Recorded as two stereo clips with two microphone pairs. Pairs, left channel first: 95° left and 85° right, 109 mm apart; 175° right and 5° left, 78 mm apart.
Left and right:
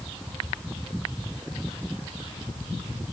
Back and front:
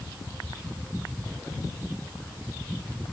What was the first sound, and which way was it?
Only background noise.